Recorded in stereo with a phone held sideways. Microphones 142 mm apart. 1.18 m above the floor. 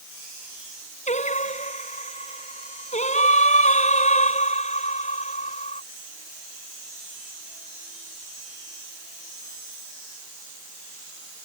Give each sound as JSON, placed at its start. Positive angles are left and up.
{"t": 1.1, "sound": "singing", "side_deg": 55}